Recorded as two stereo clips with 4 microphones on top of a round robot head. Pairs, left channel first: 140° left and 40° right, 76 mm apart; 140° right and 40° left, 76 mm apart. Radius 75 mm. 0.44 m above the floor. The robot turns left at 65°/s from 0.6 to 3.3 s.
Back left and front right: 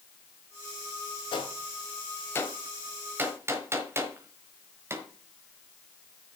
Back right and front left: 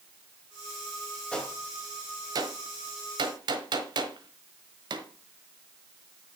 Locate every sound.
1.3 s a gunshot: 145° left, 1.4 m; by 5.1 s 15° left, 1.4 m